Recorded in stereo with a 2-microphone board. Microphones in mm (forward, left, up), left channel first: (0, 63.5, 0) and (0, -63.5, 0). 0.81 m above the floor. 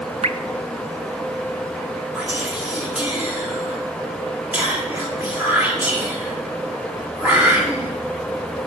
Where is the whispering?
15° right (ahead or behind), 2.0 m.